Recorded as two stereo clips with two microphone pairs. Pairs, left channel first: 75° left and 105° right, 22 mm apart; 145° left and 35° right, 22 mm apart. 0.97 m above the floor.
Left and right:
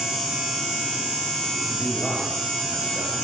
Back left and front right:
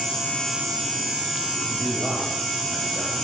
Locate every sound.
1.7 s a man speaking: 145° right, 6.5 m; by 3.1 s 130° right, 7 m